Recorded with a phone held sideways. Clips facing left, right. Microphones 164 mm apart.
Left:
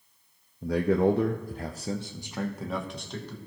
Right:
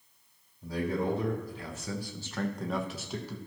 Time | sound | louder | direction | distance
0.6 | a man speaking | left 8 dB | 80° left | 0.8 m